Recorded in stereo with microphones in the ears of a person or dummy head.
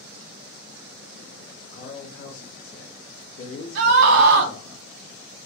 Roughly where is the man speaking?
Left.